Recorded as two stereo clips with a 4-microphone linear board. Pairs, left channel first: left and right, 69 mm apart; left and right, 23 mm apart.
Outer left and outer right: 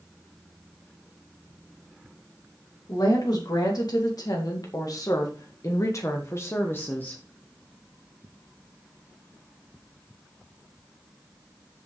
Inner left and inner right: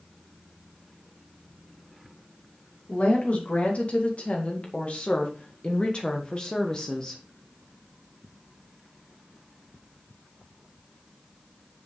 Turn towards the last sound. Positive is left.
turn(degrees=25)  # may be behind; listen again after turning